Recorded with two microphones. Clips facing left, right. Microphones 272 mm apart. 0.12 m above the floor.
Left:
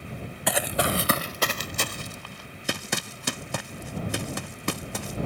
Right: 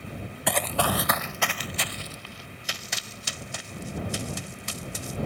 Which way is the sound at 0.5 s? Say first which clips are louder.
Left 1 dB; centre (ahead or behind).